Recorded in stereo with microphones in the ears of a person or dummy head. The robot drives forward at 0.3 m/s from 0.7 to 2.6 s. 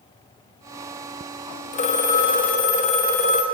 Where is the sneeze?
No sneeze in this recording.